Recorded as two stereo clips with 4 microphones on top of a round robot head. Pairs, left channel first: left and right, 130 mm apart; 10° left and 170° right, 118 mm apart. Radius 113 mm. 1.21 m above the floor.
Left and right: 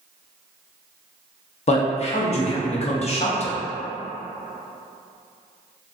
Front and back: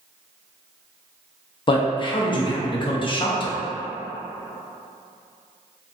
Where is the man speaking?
55° left, 0.7 m.